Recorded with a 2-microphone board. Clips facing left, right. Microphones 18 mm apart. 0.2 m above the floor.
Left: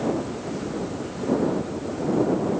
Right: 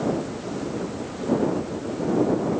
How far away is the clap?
No clap in this recording.